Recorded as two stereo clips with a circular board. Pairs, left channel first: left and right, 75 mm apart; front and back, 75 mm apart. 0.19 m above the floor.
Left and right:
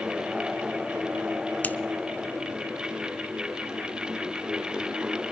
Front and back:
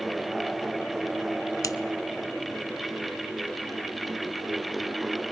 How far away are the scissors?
About 0.6 m.